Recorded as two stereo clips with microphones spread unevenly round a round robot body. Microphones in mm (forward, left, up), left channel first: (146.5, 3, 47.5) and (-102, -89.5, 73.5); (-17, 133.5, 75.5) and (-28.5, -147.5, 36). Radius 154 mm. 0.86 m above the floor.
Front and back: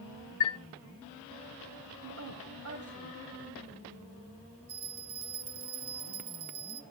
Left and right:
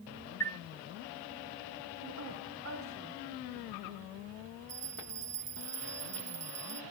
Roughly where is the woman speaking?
Behind right.